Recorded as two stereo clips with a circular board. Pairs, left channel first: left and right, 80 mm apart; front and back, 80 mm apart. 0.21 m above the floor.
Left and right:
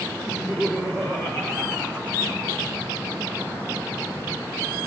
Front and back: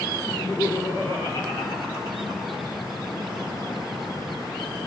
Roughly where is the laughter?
Ahead.